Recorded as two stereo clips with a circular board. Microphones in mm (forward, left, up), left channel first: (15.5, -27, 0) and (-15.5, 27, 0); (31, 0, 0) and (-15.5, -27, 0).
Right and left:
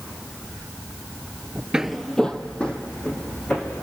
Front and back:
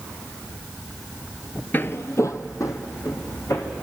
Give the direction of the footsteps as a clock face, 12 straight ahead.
10 o'clock.